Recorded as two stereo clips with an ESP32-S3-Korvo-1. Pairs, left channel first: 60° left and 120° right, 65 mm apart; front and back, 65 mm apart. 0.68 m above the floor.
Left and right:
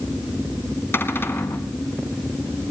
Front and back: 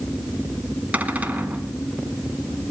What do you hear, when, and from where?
0.9 s a cupboard door: 115° left, 2 m